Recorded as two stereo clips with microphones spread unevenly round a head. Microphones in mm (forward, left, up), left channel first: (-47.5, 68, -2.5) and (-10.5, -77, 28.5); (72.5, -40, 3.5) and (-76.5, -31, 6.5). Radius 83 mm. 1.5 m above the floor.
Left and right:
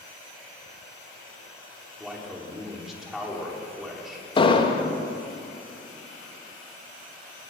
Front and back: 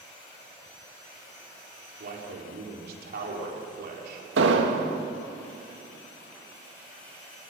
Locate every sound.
2.0 s a man speaking: 160° right, 4.5 m
4.4 s an explosion: 165° left, 2.5 m